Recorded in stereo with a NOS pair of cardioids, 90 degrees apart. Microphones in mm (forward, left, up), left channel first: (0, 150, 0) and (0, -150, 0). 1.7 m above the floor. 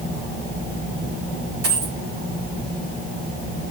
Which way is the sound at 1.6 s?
60° right.